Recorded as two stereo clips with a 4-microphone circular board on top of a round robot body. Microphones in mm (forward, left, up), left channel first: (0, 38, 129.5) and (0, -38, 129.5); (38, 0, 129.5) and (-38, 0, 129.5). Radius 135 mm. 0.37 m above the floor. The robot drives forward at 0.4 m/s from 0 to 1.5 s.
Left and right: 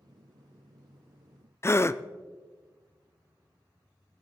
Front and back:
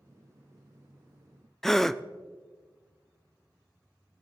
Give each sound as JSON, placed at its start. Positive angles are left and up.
{"t": 1.6, "sound": "a gasp", "azimuth_deg": 80, "distance_m": 0.5}